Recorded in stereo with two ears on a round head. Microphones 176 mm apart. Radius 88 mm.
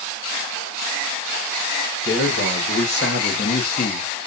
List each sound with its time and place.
2.0 s a man speaking: 55° left (ahead or behind), 1.5 m; by 4.3 s 35° left (ahead or behind), 0.8 m